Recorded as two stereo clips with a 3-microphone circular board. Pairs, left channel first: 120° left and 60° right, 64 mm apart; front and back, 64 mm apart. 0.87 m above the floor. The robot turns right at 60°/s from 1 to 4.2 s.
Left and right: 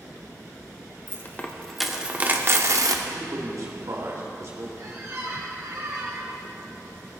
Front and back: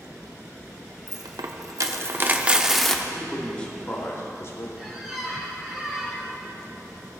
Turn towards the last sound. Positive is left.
turn(degrees=-95)